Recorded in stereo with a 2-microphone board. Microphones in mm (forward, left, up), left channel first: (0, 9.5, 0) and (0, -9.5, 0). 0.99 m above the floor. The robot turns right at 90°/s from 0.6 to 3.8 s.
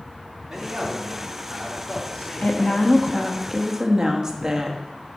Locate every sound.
0.5 s a man speaking: 50° right, 2 m; by 3.4 s 160° right, 2 m
2.4 s a woman speaking: 85° left, 1.1 m; by 4.8 s 150° right, 1.1 m